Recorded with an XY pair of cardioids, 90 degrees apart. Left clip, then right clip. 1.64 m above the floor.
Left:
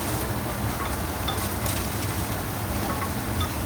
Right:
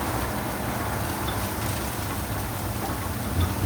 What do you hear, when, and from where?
Only background noise.